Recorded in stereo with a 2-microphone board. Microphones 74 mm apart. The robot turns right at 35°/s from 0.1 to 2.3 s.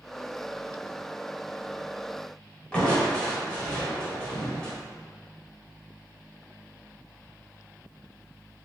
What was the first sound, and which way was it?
Crushing, 15° left (ahead or behind).